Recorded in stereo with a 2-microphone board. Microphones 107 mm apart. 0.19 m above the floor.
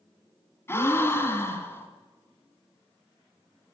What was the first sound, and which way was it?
A gasp, 25° left (ahead or behind).